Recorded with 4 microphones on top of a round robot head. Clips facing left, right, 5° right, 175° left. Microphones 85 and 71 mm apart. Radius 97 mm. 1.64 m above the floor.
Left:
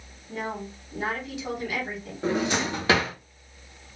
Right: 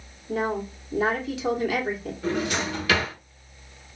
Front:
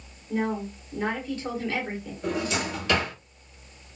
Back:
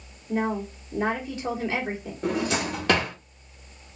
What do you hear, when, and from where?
0.3 s a woman speaking: 110° right, 1.6 m
2.2 s a drawer: 145° left, 1.2 m